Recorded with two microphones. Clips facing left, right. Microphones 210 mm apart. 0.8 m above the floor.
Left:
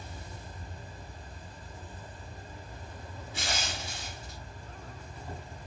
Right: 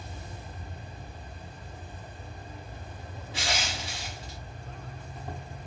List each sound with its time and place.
0.0 s an insect: 60° right (ahead or behind), 0.9 m
3.3 s crushing: 85° right, 0.7 m